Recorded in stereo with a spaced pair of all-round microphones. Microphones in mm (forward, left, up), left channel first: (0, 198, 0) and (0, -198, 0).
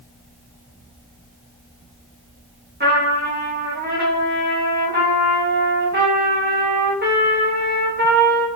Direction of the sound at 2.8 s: 25° right (ahead or behind).